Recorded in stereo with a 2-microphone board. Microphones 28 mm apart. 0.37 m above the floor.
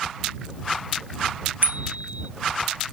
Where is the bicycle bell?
60° right (ahead or behind).